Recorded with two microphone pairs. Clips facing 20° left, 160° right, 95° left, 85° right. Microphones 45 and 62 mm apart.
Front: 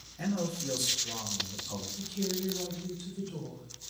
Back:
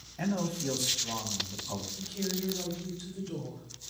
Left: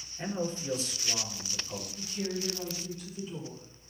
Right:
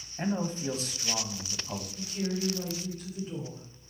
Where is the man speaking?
115° right, 3 m.